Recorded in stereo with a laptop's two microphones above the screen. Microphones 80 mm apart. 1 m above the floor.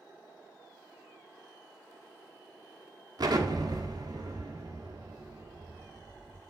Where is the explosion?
55° right (ahead or behind), 1.3 m.